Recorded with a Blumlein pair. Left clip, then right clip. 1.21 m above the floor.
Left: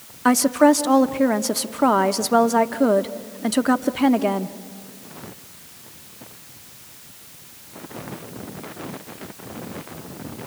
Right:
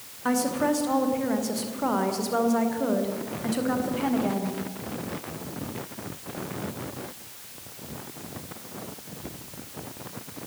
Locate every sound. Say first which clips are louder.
0.2 s a woman speaking: left 9 dB; 60° left, 1.2 m